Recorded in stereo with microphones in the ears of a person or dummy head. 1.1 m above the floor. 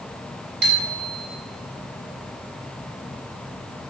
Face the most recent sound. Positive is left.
turn(degrees=-60)  # may be behind; listen again after turning